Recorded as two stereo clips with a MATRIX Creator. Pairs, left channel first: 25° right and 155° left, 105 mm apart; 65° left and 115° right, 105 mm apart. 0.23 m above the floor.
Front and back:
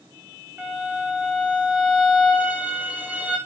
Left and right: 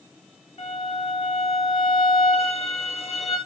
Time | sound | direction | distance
0.6 | a violin | 85° left | 9 m